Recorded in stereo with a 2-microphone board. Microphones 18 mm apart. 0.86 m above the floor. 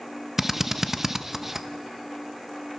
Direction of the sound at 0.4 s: 20° right (ahead or behind).